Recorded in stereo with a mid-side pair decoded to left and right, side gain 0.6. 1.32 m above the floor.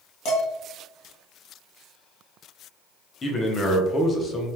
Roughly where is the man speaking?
Ahead left.